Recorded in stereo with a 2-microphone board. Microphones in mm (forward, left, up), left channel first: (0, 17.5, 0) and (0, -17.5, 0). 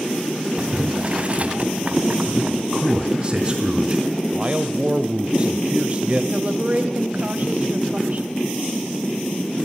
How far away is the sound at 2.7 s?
About 4 m.